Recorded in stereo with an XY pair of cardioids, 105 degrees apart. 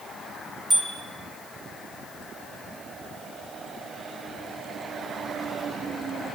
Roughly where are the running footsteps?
No running footsteps in this recording.